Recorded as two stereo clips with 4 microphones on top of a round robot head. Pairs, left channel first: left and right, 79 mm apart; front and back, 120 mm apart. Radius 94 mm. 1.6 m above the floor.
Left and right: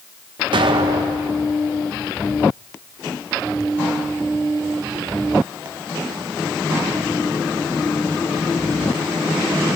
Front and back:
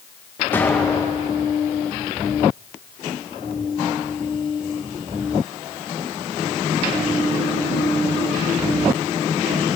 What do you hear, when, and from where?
0.5 s an explosion: 75° right, 1.6 m